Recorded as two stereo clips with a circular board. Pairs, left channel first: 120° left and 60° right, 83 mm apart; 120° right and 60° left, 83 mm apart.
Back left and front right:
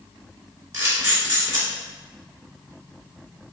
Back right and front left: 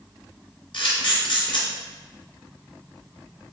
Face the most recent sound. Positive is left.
turn(degrees=-110)